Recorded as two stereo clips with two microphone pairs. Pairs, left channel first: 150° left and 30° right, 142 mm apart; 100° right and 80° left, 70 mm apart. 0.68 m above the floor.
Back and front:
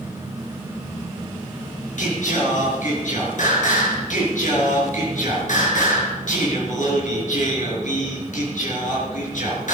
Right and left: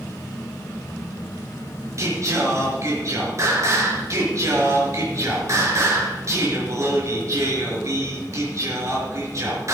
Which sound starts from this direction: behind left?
Singing, at 2.0 s.